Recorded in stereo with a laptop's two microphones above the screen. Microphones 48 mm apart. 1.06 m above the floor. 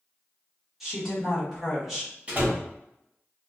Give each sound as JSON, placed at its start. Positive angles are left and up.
{"t": 0.8, "sound": "a woman speaking", "side_deg": -5, "distance_m": 1.1}
{"t": 2.3, "sound": "a door slam", "side_deg": -30, "distance_m": 0.8}